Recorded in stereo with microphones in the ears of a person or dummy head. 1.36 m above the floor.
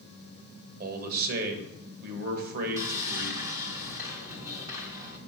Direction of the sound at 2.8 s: 20° right (ahead or behind).